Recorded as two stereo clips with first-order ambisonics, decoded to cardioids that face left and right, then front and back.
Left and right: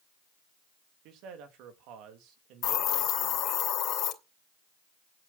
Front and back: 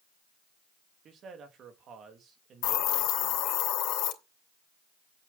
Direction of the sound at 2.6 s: 30° left.